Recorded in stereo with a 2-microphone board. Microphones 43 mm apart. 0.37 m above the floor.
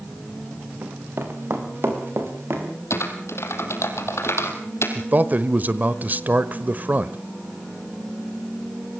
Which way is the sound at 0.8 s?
60° right (ahead or behind).